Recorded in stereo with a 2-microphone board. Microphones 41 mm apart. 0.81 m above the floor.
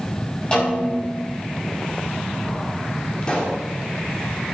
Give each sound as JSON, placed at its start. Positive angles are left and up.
{"t": 0.5, "sound": "a snare drum", "side_deg": 25, "distance_m": 6.5}
{"t": 3.2, "sound": "a pop", "side_deg": 25, "distance_m": 2.5}